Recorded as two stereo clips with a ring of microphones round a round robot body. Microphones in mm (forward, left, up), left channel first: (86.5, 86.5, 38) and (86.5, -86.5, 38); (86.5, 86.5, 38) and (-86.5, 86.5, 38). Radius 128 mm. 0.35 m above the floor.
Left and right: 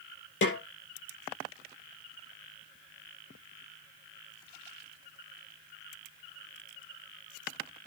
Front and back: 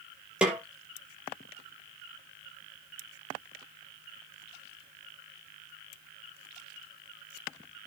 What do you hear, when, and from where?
0.4 s a snare drum: 95° left, 5 m